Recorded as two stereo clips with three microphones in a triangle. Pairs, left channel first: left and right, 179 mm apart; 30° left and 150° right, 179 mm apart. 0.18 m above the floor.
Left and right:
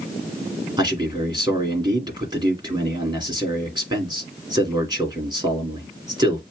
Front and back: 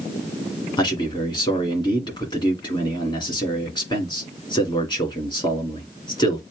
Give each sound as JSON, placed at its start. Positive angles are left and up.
{"t": 0.8, "sound": "a man speaking", "azimuth_deg": -30, "distance_m": 2.5}